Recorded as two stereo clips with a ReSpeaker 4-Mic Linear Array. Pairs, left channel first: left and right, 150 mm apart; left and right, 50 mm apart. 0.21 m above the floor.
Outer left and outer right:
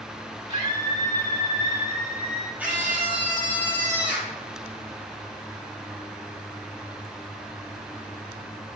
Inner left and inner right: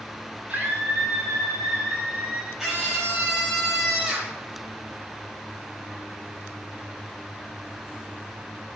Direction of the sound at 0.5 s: 30° right (ahead or behind).